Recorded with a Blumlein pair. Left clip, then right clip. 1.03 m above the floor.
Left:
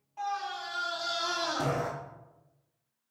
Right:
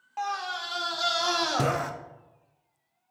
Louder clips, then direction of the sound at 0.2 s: Right 3 dB; 40° right.